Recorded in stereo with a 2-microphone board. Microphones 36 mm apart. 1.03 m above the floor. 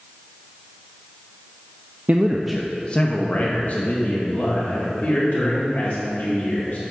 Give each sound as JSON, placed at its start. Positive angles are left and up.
{"t": 2.1, "sound": "a man speaking", "side_deg": -45, "distance_m": 0.5}